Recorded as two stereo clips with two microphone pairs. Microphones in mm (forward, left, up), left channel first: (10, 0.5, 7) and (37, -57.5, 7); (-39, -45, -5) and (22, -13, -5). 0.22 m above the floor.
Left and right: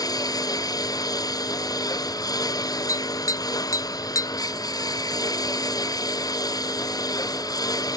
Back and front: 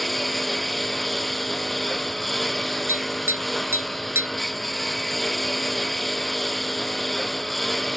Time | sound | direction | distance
0.0 | a lawn mower | 120° left | ?
2.9 | tapping | 80° left | ?